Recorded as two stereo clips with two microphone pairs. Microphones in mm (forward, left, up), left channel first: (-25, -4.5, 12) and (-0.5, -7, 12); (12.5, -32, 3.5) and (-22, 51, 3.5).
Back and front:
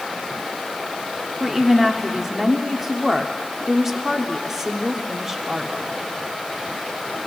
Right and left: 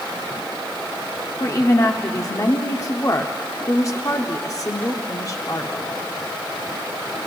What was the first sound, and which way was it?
A woman speaking, 75° right.